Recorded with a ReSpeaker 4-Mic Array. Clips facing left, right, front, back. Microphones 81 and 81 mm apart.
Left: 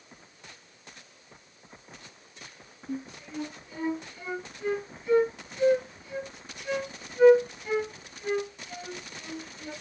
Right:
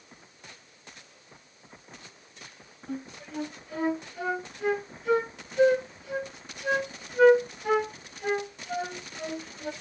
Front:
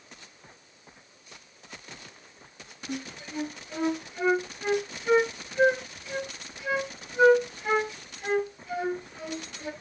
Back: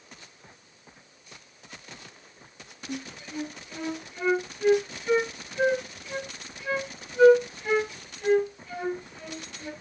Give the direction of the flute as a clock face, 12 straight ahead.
3 o'clock.